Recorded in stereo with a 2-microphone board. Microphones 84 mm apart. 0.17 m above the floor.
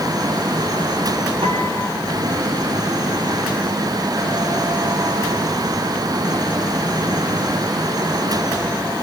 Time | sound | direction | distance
1.4 | a piano | 80° right | 10 m